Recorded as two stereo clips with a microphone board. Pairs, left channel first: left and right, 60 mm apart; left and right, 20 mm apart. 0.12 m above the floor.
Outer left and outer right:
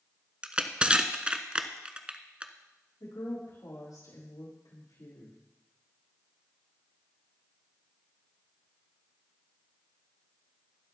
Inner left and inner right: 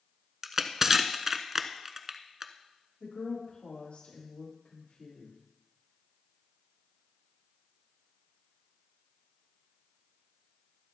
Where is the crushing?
20° right (ahead or behind), 0.8 m.